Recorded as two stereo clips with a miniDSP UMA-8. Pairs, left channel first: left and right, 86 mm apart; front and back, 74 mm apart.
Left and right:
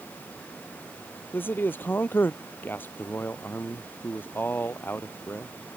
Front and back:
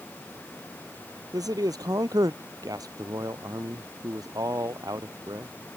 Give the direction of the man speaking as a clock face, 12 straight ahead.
7 o'clock.